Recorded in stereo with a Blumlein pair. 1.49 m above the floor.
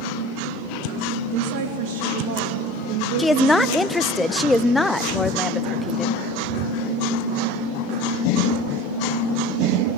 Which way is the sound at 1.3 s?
45° right.